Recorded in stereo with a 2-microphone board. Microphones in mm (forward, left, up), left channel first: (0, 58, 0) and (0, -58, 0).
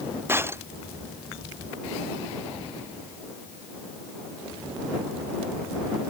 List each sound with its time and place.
0.3 s breaking glass: 20° right (ahead or behind)